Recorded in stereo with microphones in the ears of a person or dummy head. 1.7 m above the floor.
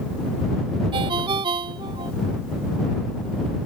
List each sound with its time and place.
0.9 s a ringtone: 25° right (ahead or behind)